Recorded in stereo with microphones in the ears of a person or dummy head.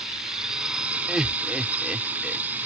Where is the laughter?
5° right (ahead or behind).